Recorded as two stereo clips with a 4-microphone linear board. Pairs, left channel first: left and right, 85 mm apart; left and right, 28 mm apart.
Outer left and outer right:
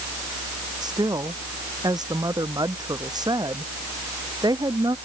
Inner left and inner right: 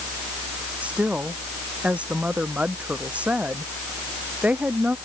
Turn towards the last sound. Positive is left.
turn(degrees=-50)  # may be behind; listen again after turning